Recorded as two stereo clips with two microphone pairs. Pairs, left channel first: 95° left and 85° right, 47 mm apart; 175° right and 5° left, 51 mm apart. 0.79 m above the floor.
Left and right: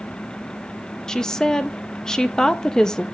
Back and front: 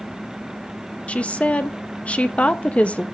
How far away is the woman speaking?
About 0.5 m.